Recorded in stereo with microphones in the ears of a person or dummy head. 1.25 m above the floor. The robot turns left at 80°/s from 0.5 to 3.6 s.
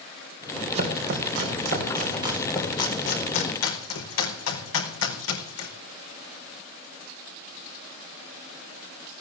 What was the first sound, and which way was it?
Chopping, 40° right (ahead or behind).